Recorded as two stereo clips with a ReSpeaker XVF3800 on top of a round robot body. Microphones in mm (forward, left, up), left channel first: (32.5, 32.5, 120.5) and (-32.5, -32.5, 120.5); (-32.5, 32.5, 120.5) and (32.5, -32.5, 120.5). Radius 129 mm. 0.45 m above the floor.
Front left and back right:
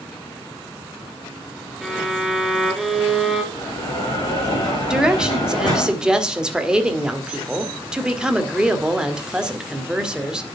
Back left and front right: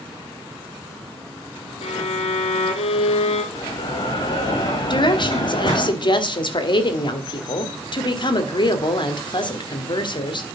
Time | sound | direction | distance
1.8 | a violin | 135° left | 1.1 m
3.5 | a bell | 95° left | 7 m
4.9 | a woman speaking | 145° left | 1.8 m